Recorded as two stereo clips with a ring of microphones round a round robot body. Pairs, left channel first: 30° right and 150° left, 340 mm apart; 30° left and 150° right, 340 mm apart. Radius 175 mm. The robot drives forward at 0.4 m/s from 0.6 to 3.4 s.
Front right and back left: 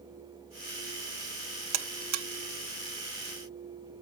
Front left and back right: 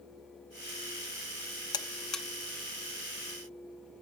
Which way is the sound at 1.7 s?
110° left.